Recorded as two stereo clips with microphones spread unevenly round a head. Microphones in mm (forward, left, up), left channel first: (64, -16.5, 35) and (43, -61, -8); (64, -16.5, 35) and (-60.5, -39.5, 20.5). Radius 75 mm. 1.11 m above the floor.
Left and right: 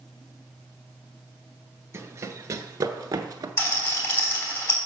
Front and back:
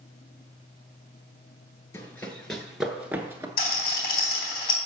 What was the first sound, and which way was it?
Running footsteps, 40° right.